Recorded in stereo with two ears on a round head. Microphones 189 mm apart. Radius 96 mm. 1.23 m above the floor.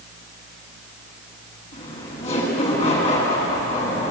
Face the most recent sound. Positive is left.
turn(degrees=30)  # may be behind; listen again after turning